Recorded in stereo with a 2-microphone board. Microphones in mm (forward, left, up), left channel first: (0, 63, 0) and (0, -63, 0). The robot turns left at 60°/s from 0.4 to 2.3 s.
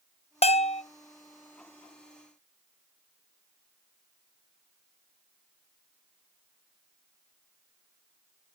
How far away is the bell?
About 0.5 m.